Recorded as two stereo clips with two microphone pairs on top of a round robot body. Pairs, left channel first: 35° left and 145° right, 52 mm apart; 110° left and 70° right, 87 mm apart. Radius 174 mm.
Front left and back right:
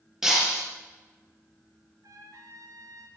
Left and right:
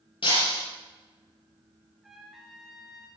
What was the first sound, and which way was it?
Breaking glass, 135° left.